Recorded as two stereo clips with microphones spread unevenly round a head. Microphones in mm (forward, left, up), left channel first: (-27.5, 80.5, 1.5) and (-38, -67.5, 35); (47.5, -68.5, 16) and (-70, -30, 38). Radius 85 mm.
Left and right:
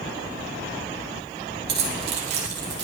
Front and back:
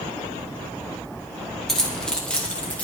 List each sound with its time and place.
1.7 s keys jangling: 105° right, 4 m; by 2.8 s 95° right, 4.5 m